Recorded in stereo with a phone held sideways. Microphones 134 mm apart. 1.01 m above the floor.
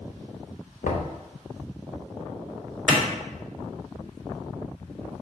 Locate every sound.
0.8 s knocking: 75° left (ahead or behind), 0.7 m
2.9 s a clap: 10° left (ahead or behind), 1.7 m